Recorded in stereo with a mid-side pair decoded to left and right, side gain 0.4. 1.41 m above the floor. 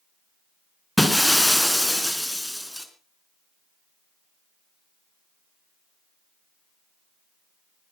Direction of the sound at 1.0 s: 5° left.